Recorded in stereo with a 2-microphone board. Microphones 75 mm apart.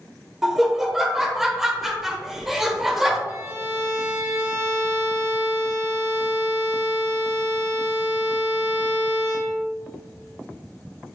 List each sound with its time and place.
0.4 s laughter: 5° right (ahead or behind), 1.1 m
3.3 s a violin: 45° right (ahead or behind), 2.5 m